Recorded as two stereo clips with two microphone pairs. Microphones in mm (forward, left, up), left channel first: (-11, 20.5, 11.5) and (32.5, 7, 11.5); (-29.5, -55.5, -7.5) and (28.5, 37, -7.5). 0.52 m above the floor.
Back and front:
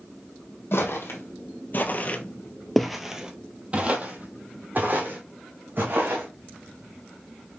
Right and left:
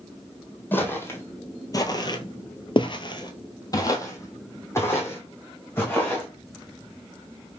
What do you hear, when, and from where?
0.7 s footsteps: 170° left, 1.3 m; by 6.3 s 50° right, 2.5 m